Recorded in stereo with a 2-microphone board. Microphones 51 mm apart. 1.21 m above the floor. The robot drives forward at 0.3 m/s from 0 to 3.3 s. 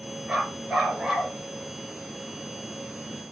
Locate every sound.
0.3 s a dog barking: 10° right (ahead or behind), 4.5 m